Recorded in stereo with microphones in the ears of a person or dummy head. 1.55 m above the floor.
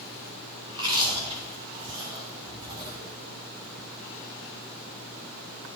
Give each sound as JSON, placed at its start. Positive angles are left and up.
{"t": 0.7, "sound": "chewing", "side_deg": -30, "distance_m": 1.9}